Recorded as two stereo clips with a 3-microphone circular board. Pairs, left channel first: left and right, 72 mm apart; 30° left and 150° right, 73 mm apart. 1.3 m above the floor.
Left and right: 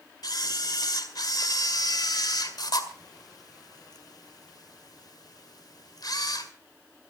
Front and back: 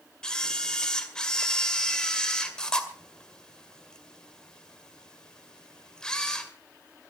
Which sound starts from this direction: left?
A camera shutter, at 0.2 s.